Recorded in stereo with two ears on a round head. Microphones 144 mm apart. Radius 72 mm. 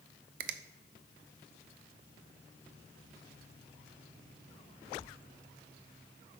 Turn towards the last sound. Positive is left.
turn(degrees=-55)  # may be behind; listen again after turning